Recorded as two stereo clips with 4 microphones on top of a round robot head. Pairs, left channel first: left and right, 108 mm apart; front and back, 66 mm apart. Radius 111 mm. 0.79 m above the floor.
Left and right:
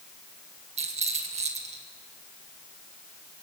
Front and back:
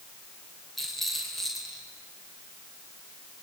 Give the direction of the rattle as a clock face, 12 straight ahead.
3 o'clock.